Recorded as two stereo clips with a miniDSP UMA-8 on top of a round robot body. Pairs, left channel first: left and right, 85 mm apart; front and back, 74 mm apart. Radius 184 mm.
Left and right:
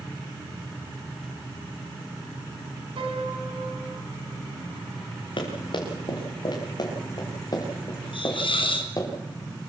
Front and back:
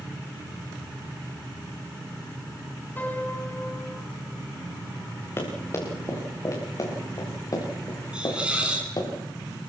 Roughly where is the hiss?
Left.